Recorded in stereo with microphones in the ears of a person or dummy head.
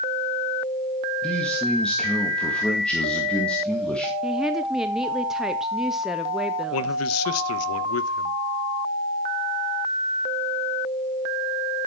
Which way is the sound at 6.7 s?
85° left.